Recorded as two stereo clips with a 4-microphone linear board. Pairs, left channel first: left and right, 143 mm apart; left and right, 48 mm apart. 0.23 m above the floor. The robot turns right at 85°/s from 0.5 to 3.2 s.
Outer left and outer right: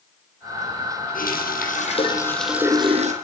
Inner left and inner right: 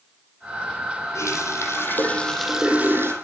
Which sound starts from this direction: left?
A running tap, at 1.1 s.